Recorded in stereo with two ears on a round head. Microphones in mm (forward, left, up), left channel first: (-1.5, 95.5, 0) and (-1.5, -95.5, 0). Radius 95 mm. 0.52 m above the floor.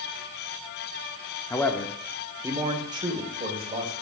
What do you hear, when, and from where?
1.5 s a man speaking: 15° left (ahead or behind), 0.9 m; by 3.9 s 30° right (ahead or behind), 2.5 m